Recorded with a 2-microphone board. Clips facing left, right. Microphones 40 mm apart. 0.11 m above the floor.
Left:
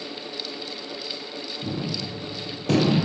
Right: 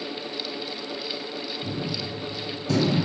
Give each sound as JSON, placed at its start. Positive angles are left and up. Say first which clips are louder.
{"t": 1.6, "sound": "a gunshot", "louder": "left 3 dB", "side_deg": 60, "distance_m": 2.0}